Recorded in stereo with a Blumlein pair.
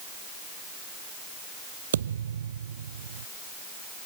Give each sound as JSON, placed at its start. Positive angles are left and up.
{"t": 1.9, "sound": "a thud", "azimuth_deg": -65}